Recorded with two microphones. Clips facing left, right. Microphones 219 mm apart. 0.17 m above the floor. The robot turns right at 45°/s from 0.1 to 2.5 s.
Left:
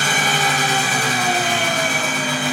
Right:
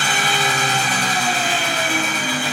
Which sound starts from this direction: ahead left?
An engine running, at 0.0 s.